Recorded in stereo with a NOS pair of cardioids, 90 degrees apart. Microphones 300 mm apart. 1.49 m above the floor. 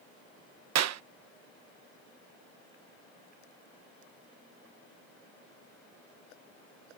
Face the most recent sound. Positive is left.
turn(degrees=-60)